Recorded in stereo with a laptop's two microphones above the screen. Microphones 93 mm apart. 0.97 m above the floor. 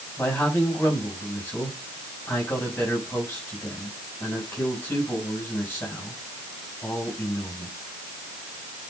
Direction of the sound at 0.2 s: 25° left (ahead or behind).